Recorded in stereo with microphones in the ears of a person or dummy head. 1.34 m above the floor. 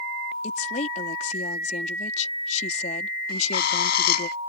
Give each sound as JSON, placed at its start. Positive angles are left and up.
{"t": 0.4, "sound": "a woman speaking", "side_deg": 45}
{"t": 3.3, "sound": "a bird", "side_deg": 60}